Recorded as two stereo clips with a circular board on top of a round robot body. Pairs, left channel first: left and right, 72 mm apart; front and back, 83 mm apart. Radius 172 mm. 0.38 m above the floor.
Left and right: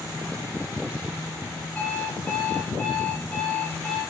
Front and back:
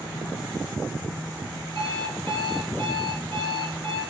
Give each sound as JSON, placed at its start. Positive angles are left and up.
{"t": 1.8, "sound": "an alarm clock", "azimuth_deg": 160, "distance_m": 6.0}